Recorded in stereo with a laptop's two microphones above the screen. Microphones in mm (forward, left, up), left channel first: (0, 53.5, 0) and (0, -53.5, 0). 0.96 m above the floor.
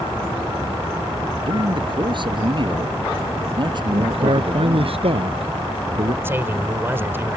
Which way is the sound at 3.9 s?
60° right (ahead or behind).